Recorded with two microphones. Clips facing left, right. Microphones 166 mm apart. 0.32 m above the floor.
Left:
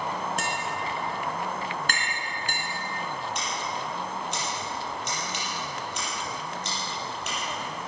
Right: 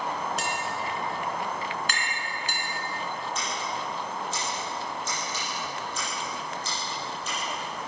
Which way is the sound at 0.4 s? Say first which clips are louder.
Even; 50° left (ahead or behind).